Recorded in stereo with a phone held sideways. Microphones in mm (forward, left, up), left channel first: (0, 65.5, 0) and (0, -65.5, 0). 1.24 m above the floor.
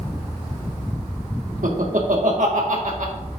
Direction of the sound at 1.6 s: 75° right (ahead or behind).